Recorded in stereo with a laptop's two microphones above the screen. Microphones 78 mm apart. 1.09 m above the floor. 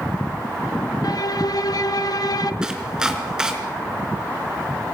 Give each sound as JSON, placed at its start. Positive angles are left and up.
{"t": 1.0, "sound": "a violin", "side_deg": 60, "distance_m": 0.9}
{"t": 2.6, "sound": "chopping", "side_deg": -10, "distance_m": 4.0}